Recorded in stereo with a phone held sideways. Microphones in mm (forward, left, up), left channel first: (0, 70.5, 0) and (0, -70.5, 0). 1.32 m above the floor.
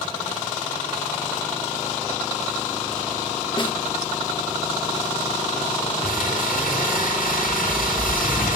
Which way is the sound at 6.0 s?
80° left.